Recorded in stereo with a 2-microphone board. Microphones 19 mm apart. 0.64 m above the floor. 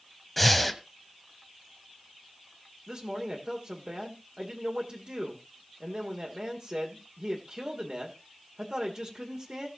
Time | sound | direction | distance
0.4 | breathing | 10° left (ahead or behind) | 1.2 m
2.9 | a man speaking | 50° right (ahead or behind) | 1.9 m